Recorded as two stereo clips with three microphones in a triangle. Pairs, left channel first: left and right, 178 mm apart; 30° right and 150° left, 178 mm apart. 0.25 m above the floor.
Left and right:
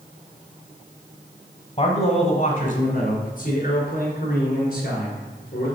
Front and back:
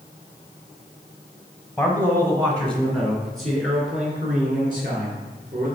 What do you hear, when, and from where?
1.8 s a man speaking: 65° left, 1.1 m; by 5.7 s 125° left, 3 m